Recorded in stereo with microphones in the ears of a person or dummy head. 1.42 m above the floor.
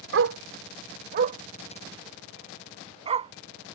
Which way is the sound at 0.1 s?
60° right (ahead or behind).